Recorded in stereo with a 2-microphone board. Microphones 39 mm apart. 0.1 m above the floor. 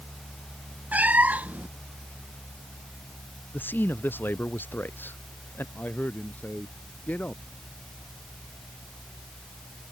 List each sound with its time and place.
0.9 s a cat meowing: 40° right (ahead or behind)
3.5 s a man speaking: 55° left (ahead or behind)
5.8 s a man speaking: 45° left (ahead or behind)